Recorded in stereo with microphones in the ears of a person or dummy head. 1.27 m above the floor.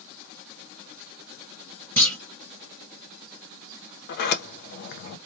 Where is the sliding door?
60° left (ahead or behind), 0.6 m.